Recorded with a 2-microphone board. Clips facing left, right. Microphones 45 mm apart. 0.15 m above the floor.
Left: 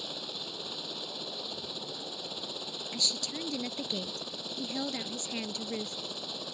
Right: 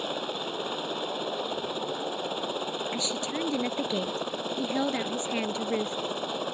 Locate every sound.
0.0 s a helicopter: 40° right (ahead or behind)
2.9 s a woman speaking: 35° right (ahead or behind)